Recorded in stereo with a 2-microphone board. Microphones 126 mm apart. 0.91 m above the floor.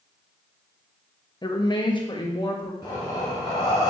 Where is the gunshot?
No gunshot in this recording.